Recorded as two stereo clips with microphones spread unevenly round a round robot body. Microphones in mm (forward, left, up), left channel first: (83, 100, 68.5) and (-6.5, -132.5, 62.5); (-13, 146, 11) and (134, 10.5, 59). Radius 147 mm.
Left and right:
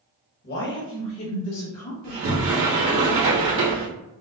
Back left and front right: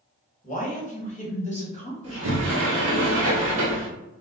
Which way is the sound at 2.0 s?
75° right.